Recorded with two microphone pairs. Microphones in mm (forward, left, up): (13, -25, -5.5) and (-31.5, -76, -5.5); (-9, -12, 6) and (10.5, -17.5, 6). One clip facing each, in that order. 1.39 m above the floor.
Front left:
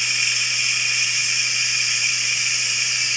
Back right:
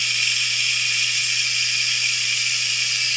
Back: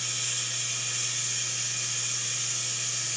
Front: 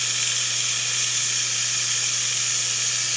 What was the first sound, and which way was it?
Running water, 25° right.